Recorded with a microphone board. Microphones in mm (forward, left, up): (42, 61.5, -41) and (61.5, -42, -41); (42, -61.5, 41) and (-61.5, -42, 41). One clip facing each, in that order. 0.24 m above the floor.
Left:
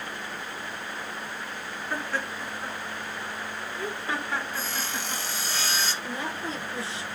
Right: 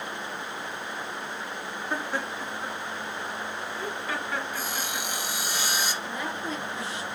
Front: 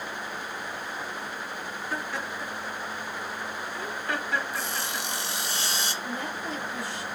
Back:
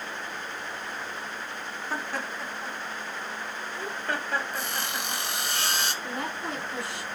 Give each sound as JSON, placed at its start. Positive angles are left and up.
{"t": 1.9, "sound": "laughter", "azimuth_deg": -145, "distance_m": 2.5}
{"t": 4.5, "sound": "sawing", "azimuth_deg": -155, "distance_m": 1.3}
{"t": 6.0, "sound": "a woman speaking", "azimuth_deg": 160, "distance_m": 3.0}